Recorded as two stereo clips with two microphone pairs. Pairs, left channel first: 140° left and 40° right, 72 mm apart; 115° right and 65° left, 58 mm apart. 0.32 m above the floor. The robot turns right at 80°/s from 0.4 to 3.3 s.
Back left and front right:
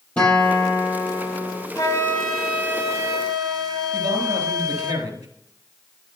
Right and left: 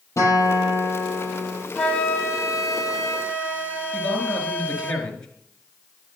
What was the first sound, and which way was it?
A guitar, 145° right.